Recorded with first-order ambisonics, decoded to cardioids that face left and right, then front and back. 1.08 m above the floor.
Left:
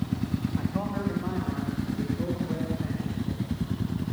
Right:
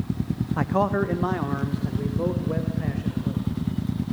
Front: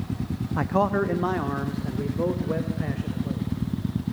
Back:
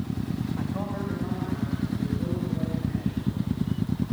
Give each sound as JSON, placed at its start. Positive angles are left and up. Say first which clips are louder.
{"t": 0.6, "sound": "a man speaking", "louder": "right 13 dB, front 15 dB", "azimuth_deg": -45, "distance_m": 1.1}